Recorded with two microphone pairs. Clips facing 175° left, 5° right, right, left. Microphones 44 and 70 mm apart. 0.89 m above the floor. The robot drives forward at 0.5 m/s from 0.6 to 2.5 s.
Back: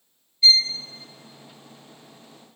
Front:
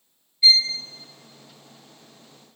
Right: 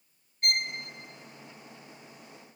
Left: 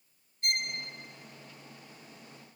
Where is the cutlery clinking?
I don't hear cutlery clinking.